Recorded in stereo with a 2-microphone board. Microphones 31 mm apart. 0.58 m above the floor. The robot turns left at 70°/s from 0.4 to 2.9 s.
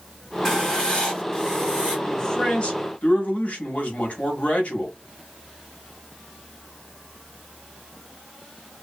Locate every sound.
0.5 s writing: 10° left (ahead or behind), 1.2 m; by 2.0 s 15° left (ahead or behind), 1.2 m
2.1 s a man speaking: 170° left, 1.0 m; by 5.0 s 110° left, 1.0 m